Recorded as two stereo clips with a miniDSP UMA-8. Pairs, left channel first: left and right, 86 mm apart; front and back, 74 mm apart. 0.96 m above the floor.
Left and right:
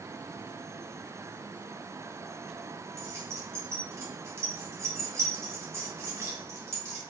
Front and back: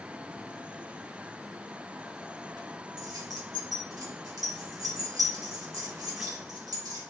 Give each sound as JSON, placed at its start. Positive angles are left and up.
{"t": 3.0, "sound": "keys jangling", "azimuth_deg": -145, "distance_m": 1.2}